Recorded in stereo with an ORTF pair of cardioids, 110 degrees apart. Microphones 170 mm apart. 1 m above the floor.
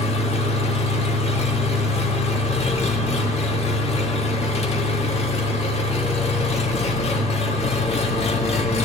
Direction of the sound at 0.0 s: 40° left.